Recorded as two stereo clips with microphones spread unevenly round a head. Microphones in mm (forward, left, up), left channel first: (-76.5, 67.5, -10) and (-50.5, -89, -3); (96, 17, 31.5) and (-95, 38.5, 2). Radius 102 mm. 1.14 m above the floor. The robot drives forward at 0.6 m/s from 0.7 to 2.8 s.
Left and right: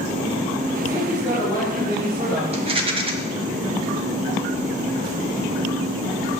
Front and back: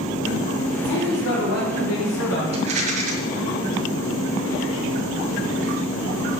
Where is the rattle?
120° right, 1.5 m; by 3.1 s 130° right, 1.6 m.